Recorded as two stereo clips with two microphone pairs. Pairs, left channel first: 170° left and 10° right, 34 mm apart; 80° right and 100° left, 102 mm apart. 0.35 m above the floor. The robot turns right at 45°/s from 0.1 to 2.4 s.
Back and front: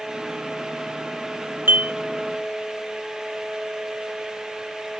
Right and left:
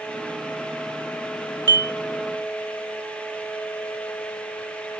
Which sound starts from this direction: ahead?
Dishes clattering, at 1.7 s.